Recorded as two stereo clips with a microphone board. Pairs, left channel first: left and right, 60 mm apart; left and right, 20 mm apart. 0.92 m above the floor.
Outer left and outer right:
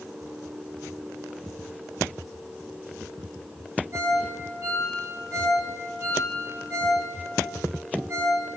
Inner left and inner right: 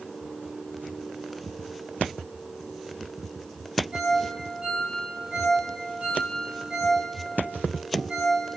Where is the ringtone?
40° right (ahead or behind), 4 m.